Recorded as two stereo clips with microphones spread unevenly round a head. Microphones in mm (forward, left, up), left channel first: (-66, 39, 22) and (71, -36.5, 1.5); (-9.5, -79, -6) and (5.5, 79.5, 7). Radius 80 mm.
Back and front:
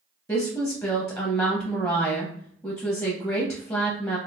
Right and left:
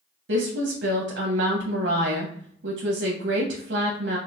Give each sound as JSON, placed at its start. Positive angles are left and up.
{"t": 0.3, "sound": "a woman speaking", "azimuth_deg": 75, "distance_m": 0.8}